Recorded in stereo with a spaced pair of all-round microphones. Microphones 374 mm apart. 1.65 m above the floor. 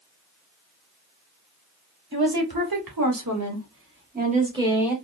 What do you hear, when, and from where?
2.1 s a woman speaking: 80° right, 1.4 m; by 5.0 s centre (ahead or behind), 1.1 m